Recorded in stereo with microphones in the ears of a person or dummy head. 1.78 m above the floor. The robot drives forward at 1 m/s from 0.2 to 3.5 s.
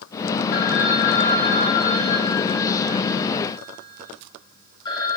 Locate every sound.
0.5 s a phone ringing: 45° left (ahead or behind), 2.5 m; by 5.2 s 20° left (ahead or behind), 5 m